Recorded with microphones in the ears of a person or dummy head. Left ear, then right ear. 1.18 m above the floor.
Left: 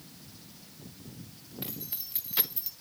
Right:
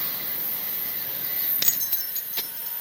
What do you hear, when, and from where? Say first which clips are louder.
1.6 s keys jangling: right 12 dB; 65° right (ahead or behind), 0.5 m; by 2.7 s 15° left (ahead or behind), 1.3 m